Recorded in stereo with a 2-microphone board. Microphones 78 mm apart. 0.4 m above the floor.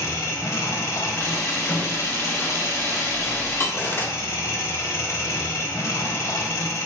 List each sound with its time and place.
0.0 s an engine running: 40° left (ahead or behind), 1.0 m
1.2 s a camera shutter: 35° left (ahead or behind), 2 m
3.7 s cutlery clinking: 30° left (ahead or behind), 0.6 m